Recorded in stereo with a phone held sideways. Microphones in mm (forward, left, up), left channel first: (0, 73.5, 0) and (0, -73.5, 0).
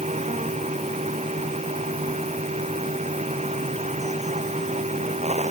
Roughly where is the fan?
Right.